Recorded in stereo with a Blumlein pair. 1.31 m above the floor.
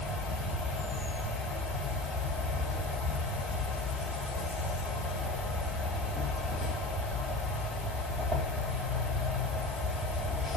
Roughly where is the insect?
Ahead.